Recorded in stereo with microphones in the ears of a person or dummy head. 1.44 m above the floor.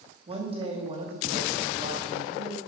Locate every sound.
0.3 s a woman speaking: 30° right (ahead or behind), 2.5 m